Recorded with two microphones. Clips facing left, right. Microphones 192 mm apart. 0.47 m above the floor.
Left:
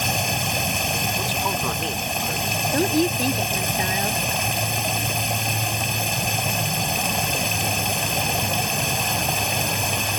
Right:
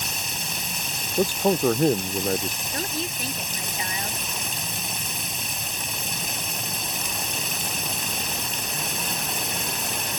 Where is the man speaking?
45° right (ahead or behind).